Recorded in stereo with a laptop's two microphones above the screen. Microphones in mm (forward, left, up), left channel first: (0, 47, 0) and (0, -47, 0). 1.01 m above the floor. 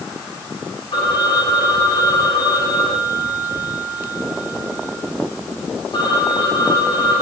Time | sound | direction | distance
0.9 | a phone ringing | 55° left (ahead or behind) | 5.5 m